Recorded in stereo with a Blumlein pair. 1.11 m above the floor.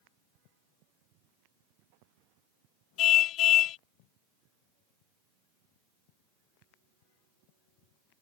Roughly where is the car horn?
Ahead left.